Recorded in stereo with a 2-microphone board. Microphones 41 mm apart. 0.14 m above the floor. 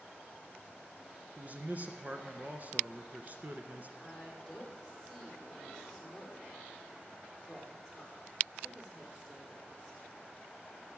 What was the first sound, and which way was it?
A man speaking, 40° right (ahead or behind).